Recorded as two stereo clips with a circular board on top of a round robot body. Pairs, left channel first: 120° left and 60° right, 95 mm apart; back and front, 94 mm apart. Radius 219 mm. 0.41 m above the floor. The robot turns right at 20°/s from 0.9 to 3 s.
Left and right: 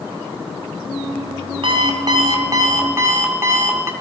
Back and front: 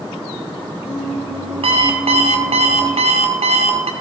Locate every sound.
1.6 s an alarm clock: 25° right, 2 m; by 3.9 s straight ahead, 2 m